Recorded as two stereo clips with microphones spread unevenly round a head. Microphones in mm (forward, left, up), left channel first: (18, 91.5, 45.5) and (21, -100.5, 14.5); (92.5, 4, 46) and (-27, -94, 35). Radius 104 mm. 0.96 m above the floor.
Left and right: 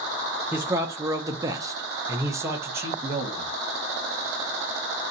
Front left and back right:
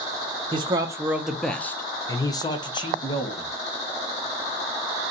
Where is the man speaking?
145° right, 0.6 m; by 3.5 s 15° right, 1.4 m.